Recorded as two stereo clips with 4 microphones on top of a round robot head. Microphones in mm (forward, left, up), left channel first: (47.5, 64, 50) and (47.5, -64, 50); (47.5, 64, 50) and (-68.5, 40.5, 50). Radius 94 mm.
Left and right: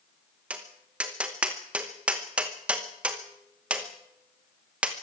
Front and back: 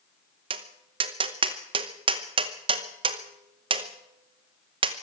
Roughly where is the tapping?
Behind.